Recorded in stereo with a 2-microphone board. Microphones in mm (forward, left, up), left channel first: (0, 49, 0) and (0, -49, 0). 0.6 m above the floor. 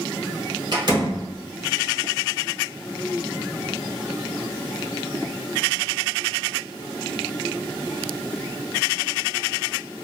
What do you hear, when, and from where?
0.7 s a door slam: 55° right (ahead or behind), 1.5 m